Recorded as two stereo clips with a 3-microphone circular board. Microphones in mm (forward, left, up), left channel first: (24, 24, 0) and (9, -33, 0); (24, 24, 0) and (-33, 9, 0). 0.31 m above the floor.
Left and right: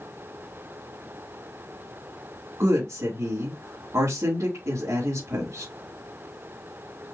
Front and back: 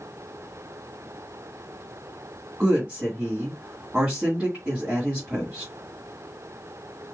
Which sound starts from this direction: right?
A woman speaking, at 2.6 s.